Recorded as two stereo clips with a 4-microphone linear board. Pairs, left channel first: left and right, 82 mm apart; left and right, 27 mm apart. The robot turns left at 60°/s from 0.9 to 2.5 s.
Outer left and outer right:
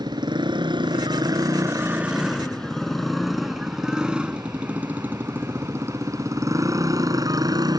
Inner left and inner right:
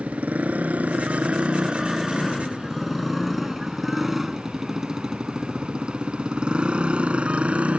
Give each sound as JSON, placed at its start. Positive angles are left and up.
{"t": 0.0, "sound": "a motorcycle", "side_deg": -70}